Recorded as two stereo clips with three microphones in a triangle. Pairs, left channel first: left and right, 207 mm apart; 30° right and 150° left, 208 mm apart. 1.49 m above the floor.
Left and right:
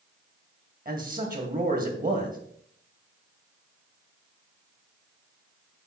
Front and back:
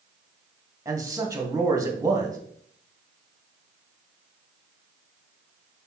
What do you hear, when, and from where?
0.8 s a man speaking: 135° right, 1.7 m